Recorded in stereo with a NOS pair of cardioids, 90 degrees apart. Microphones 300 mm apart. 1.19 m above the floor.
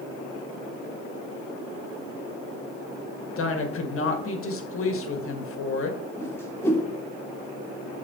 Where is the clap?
No clap in this recording.